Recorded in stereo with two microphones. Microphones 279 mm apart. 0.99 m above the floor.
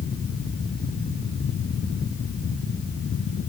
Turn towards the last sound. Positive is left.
No sound to turn to.